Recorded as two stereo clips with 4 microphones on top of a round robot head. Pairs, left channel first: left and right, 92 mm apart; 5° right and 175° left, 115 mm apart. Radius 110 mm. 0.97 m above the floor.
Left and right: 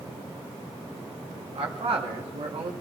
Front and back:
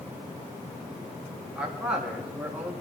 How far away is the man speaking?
About 2 m.